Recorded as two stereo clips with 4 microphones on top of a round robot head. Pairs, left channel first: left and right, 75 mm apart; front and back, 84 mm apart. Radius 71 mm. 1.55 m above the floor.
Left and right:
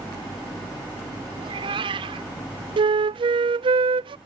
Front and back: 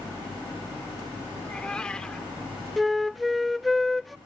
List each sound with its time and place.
1.4 s a cat meowing: 80° right
2.8 s a flute: 90° right